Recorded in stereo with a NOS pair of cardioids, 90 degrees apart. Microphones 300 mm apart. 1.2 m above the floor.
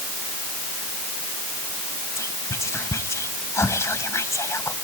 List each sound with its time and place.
2.2 s whispering: 10° left, 1.3 m